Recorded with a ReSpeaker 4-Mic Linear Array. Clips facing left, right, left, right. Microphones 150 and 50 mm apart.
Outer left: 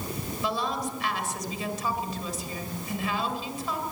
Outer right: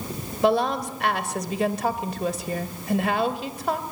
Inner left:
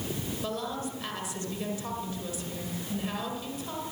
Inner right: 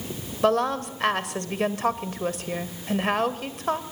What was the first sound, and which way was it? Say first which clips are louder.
A woman speaking: outer right 10 dB, inner right 14 dB; 65° right (ahead or behind).